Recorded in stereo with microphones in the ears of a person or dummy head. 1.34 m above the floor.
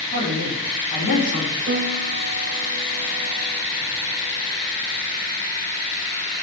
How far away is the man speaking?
About 4 m.